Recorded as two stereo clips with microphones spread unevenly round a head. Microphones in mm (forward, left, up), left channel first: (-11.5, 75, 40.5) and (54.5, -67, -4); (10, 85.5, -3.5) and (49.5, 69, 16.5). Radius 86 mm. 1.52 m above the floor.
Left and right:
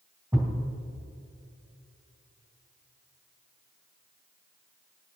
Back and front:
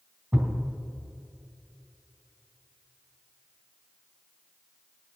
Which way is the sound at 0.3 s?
10° left.